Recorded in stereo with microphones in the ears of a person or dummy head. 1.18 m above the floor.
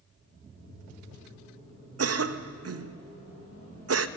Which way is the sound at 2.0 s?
85° right.